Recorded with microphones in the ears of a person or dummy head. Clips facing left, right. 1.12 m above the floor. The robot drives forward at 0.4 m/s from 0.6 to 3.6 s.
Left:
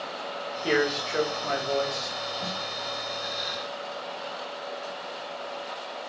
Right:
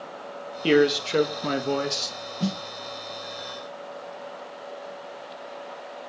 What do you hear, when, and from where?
0.6 s a man speaking: 35° right (ahead or behind), 1.2 m; by 2.1 s 55° right (ahead or behind), 0.9 m
2.4 s a snare drum: 45° right (ahead or behind), 0.8 m; by 2.6 s 40° right (ahead or behind), 0.9 m